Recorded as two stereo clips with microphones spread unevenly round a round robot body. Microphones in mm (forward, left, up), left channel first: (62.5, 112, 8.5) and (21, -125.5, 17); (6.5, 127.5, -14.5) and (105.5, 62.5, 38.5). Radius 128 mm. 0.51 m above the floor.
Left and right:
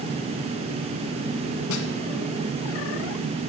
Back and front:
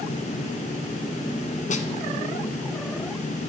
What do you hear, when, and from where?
1.7 s a snare drum: 120° left, 1.0 m